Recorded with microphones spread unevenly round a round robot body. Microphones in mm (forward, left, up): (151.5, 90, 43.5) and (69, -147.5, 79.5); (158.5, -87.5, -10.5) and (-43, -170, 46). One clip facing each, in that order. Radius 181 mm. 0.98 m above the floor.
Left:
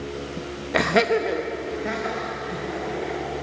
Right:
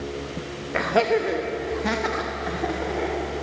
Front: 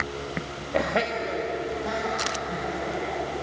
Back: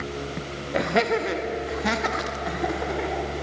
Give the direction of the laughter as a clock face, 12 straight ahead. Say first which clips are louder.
Left 1 dB, back 4 dB; 8 o'clock.